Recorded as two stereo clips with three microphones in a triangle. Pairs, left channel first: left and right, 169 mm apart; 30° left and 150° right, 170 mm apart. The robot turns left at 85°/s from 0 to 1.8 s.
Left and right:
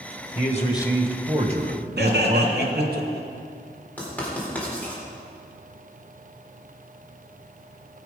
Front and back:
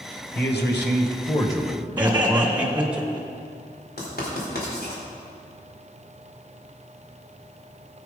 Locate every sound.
0.3 s a man speaking: 55° left, 1.8 m; by 3.0 s 65° right, 1.8 m
2.0 s laughter: 70° right, 2 m
4.0 s writing: 10° left, 4 m